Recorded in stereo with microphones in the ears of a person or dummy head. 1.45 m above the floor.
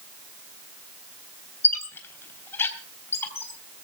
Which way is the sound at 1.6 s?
20° left (ahead or behind).